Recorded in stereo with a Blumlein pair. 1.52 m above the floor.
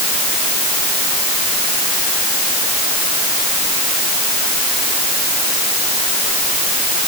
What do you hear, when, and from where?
Only background noise.